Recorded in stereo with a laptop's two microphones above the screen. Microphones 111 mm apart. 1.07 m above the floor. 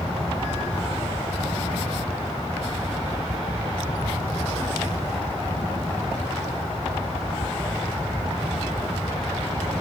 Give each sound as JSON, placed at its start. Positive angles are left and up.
{"t": 0.0, "sound": "a fan", "side_deg": -20, "distance_m": 4.0}